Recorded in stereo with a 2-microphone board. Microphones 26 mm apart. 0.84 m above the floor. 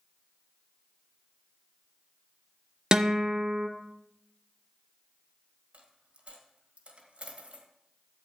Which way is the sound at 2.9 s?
30° right (ahead or behind).